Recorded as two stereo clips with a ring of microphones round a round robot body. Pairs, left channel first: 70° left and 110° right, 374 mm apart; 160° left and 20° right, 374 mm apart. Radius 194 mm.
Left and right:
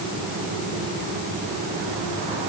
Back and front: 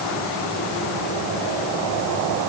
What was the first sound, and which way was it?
Only background noise.